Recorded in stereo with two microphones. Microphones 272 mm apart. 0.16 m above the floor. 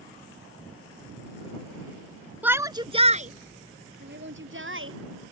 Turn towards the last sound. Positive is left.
turn(degrees=-55)  # may be behind; listen again after turning